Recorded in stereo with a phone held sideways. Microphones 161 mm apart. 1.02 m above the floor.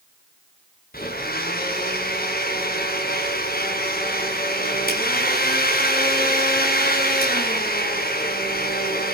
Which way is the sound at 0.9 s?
65° left (ahead or behind).